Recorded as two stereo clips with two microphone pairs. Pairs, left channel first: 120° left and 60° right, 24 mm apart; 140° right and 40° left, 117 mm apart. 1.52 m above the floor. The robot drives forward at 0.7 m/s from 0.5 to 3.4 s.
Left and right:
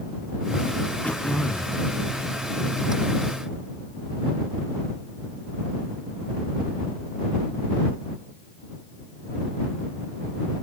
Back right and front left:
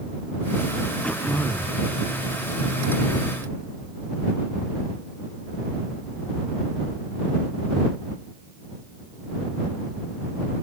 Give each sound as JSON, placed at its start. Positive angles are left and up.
{"t": 1.0, "sound": "throat clearing", "azimuth_deg": 140, "distance_m": 0.8}